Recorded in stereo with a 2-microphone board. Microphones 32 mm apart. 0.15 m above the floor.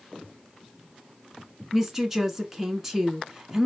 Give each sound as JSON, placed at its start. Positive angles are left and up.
{"t": 1.7, "sound": "a woman speaking", "side_deg": -10, "distance_m": 1.3}